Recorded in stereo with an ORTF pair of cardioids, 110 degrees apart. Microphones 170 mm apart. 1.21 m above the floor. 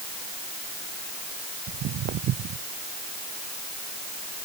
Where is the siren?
I don't hear a siren.